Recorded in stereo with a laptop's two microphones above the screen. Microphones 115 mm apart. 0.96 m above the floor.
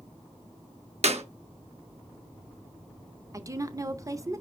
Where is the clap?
65° right (ahead or behind), 1.3 m.